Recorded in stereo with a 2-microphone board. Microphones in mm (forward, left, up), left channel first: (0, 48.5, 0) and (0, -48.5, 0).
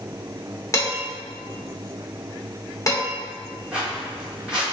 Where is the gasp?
No gasp in this recording.